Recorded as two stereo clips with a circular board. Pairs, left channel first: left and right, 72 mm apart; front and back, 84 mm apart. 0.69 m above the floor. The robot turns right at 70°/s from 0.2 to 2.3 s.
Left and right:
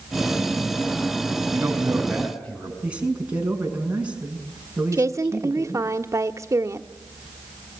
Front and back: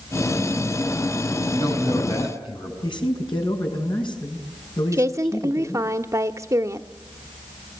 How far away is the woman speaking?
About 1.3 m.